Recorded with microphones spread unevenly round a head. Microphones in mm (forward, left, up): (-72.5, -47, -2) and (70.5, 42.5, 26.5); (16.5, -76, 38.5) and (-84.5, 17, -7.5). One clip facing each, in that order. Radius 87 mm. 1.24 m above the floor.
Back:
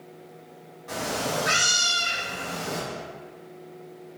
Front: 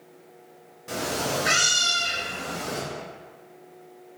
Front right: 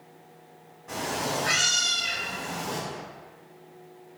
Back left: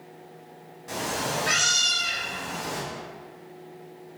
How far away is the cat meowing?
About 0.6 m.